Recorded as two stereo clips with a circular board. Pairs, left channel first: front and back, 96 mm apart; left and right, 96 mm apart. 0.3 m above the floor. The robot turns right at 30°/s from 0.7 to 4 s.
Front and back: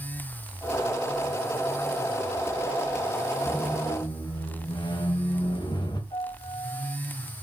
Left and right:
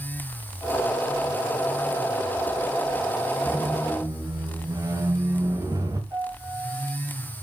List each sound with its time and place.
3.5 s a squeak: 55° right, 4 m; by 6.0 s 35° right, 4 m
6.1 s a piano: 30° right, 8 m